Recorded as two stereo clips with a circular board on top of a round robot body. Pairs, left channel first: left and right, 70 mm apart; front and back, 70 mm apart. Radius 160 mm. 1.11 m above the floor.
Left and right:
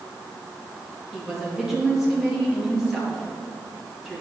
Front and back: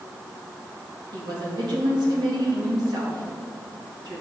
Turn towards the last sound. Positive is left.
turn(degrees=-175)